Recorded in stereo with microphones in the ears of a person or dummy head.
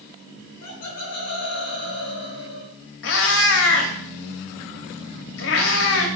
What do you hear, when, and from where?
0.4 s laughter: 70° left (ahead or behind), 1.0 m
3.0 s a cat meowing: 50° left (ahead or behind), 1.0 m